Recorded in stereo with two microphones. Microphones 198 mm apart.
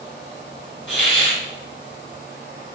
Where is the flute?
No flute in this recording.